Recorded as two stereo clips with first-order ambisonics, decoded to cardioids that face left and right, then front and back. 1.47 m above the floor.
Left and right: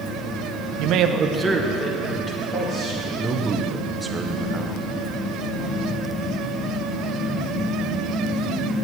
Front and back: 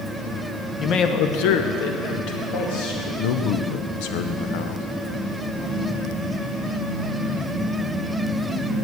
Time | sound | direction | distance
0.8 | a man speaking | 65° right | 0.7 m
3.2 | a man speaking | 5° right | 0.8 m